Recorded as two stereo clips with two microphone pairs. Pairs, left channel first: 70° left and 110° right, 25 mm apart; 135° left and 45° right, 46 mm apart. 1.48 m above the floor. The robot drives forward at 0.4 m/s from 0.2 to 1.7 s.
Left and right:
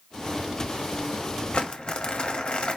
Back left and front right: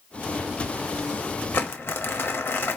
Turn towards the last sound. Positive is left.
turn(degrees=115)